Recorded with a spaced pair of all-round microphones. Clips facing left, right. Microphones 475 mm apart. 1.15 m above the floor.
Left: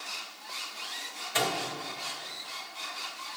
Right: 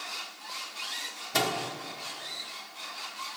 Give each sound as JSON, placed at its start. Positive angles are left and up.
{"t": 1.3, "sound": "a microwave", "side_deg": -60, "distance_m": 1.0}